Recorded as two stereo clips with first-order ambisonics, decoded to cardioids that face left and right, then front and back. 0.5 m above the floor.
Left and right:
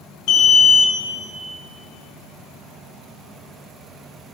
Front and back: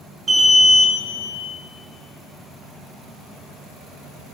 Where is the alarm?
105° left, 0.8 m.